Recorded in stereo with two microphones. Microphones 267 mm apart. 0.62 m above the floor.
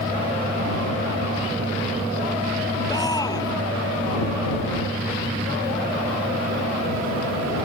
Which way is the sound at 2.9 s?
15° left (ahead or behind).